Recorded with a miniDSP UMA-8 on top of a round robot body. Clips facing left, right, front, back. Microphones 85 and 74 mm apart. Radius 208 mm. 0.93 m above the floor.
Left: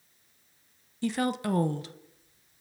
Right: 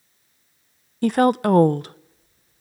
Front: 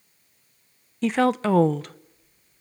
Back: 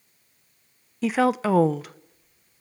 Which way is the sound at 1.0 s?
95° right.